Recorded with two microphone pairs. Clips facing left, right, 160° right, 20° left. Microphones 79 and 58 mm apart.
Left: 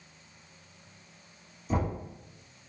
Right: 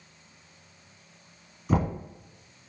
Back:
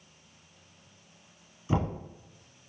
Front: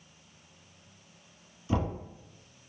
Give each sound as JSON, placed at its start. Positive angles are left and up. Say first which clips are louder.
{"t": 1.7, "sound": "knocking", "louder": "right 4 dB, back 1 dB", "azimuth_deg": -100, "distance_m": 1.7}